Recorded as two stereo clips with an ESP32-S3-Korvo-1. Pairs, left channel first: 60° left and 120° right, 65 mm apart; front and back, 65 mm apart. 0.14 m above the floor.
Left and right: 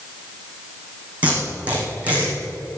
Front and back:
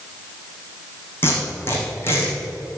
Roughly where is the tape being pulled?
Ahead right.